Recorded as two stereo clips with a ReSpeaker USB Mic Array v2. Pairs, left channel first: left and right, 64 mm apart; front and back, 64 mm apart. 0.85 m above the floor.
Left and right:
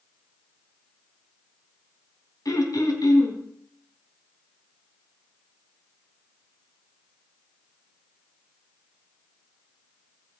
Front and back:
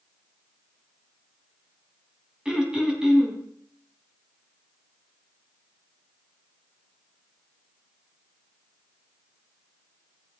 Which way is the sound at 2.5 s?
105° left.